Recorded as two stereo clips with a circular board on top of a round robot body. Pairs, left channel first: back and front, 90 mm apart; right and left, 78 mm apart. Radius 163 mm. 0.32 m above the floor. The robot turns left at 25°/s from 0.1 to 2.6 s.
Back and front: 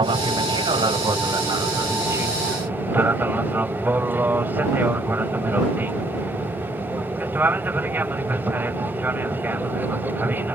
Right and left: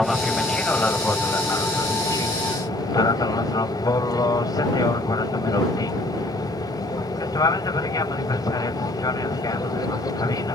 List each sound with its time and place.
0.0 s an aircraft: 5° right; by 10.6 s 65° right